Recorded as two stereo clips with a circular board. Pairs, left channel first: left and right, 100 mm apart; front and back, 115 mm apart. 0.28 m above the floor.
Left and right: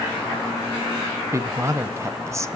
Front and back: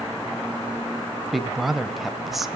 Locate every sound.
1.3 s a woman speaking: 90° right, 1.2 m